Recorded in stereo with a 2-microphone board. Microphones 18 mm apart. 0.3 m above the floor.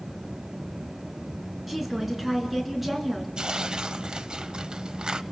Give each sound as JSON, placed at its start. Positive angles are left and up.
{"t": 1.7, "sound": "a woman speaking", "side_deg": -10, "distance_m": 4.0}
{"t": 3.4, "sound": "tearing paper", "side_deg": -45, "distance_m": 0.8}